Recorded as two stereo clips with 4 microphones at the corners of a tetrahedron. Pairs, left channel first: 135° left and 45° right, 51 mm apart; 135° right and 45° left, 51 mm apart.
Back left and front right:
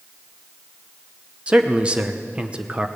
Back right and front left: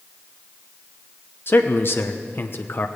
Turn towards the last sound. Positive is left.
turn(degrees=-105)